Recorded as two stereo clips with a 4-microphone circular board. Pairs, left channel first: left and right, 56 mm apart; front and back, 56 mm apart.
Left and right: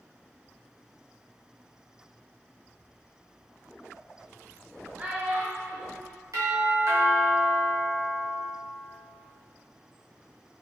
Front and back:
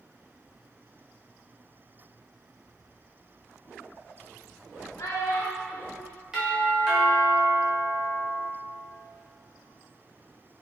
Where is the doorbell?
105° right, 0.9 m.